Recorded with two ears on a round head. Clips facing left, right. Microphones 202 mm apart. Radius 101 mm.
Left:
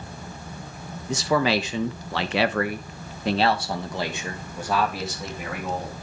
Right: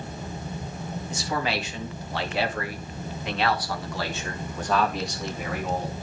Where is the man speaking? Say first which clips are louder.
Left 8 dB; 55° left (ahead or behind), 1.2 m; by 5.9 s centre (ahead or behind), 2 m.